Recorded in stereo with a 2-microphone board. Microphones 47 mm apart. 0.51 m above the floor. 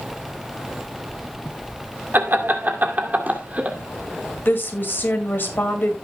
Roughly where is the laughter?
Right.